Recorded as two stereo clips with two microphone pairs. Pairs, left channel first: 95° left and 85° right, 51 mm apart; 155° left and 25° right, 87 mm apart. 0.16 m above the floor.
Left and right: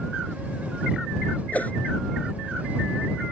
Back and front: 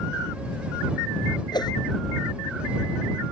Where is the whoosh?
145° left.